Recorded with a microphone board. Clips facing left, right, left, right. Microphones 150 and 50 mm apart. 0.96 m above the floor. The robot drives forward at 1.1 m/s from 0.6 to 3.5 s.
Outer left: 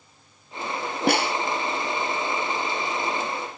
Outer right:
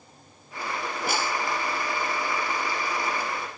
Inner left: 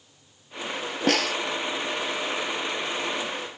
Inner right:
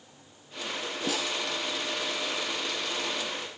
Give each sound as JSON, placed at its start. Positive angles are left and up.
{"t": 1.1, "sound": "a snare drum", "side_deg": 70}